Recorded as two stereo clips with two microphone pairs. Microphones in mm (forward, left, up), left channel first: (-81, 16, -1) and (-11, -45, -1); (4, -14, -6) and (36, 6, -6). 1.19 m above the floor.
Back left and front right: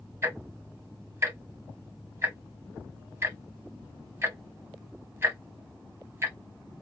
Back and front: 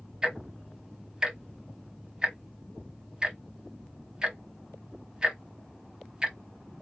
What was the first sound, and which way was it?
Ticking, 5° right.